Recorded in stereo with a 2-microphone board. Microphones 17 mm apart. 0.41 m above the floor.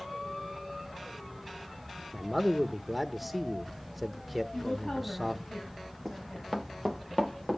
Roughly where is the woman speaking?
Left.